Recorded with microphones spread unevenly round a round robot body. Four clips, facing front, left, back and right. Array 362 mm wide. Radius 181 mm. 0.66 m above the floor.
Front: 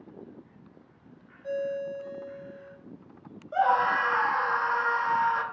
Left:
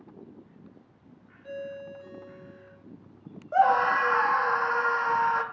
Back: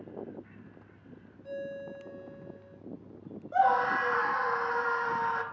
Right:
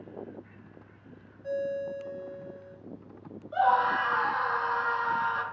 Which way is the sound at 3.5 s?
125° left.